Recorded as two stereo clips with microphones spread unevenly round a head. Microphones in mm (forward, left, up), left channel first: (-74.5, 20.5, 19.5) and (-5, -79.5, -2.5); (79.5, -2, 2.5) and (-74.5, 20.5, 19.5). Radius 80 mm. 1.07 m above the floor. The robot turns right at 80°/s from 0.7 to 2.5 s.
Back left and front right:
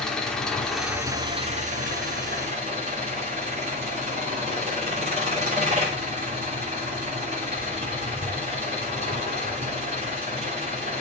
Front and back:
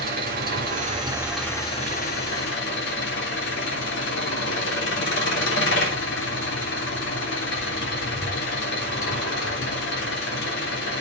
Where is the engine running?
150° right, 3 m; by 11.0 s 5° right, 3 m.